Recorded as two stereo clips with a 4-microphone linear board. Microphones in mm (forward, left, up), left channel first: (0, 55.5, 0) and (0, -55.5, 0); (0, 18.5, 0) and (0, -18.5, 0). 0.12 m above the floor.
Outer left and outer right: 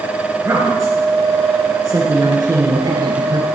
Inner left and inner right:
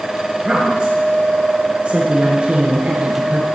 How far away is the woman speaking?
About 1.9 m.